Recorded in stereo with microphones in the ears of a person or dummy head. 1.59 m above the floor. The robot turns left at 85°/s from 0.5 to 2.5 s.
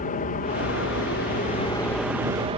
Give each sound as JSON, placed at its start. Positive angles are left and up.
{"t": 0.0, "sound": "an aircraft", "azimuth_deg": 130}